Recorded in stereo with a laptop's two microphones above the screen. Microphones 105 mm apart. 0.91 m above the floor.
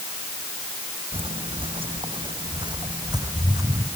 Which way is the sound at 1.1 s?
65° right (ahead or behind).